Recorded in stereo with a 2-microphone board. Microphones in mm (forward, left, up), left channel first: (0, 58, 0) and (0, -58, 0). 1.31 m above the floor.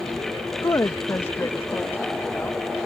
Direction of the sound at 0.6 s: 30° left (ahead or behind).